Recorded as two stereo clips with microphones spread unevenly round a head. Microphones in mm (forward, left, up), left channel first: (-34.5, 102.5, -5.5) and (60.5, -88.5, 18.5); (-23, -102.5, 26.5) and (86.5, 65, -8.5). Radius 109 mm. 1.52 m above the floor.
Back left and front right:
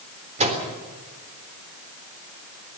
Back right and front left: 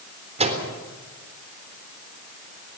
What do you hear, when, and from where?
0.4 s a microwave: 5° right, 3.5 m